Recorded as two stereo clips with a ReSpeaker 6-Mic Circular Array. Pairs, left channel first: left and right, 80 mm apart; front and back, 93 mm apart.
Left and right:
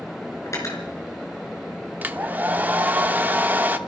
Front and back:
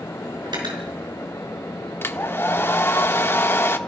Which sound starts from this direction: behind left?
Cutlery clinking, at 0.5 s.